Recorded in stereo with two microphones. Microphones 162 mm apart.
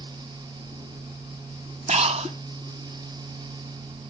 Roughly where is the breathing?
Right.